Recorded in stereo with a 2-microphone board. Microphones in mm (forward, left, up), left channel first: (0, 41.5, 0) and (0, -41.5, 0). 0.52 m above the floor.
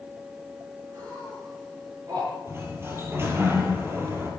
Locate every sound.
0.9 s laughter: 50° right (ahead or behind), 7 m
2.5 s a sliding door: 30° right (ahead or behind), 3.5 m